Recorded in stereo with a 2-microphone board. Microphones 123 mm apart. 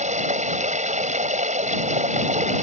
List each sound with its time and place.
0.0 s running water: 75° right (ahead or behind)